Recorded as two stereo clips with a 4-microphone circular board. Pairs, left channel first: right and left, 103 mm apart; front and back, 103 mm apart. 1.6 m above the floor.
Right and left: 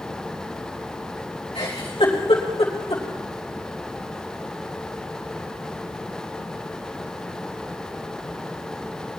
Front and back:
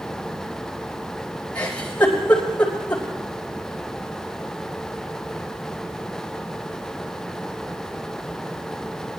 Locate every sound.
1.6 s a giggle: 75° right, 4 m